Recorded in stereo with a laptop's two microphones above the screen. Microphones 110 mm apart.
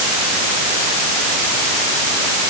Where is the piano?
No piano in this recording.